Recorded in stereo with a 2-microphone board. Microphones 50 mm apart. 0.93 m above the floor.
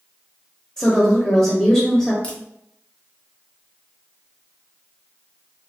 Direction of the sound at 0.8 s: 10° left (ahead or behind).